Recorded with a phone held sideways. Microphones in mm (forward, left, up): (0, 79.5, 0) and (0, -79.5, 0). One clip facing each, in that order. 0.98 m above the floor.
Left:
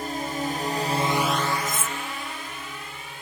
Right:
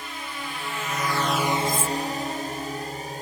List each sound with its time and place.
0.0 s a drone: 45° left (ahead or behind); by 3.2 s 45° right (ahead or behind)
1.6 s cutlery clinking: 25° left (ahead or behind)